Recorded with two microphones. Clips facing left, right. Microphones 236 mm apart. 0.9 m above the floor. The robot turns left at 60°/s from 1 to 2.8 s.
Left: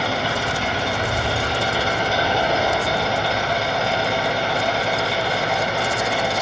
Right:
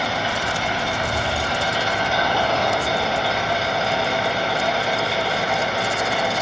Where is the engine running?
105° left, 3.5 m; by 6.4 s straight ahead, 3.5 m.